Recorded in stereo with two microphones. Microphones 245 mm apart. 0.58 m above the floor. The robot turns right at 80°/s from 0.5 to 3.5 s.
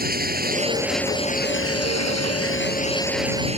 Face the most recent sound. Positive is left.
turn(degrees=-155)